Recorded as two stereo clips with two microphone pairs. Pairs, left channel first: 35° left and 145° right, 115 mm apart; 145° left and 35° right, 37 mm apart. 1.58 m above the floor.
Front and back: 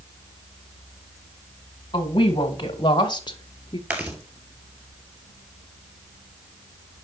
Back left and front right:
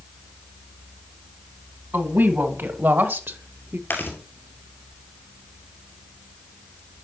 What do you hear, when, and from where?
1.9 s a woman speaking: 15° right, 2 m; by 3.8 s 10° right, 0.7 m
3.9 s chewing: 140° left, 2.5 m